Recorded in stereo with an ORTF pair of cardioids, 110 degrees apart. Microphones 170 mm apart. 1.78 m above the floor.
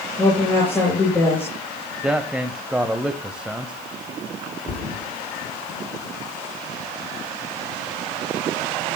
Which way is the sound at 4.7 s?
50° left.